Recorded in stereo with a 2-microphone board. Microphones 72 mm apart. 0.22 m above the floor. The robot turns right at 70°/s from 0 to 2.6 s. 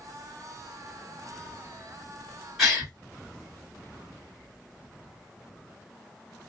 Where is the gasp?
5° right (ahead or behind), 1.9 m.